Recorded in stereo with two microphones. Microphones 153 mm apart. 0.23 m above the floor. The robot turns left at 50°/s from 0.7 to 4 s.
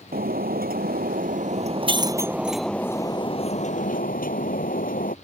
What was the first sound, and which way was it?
Breaking glass, 85° right.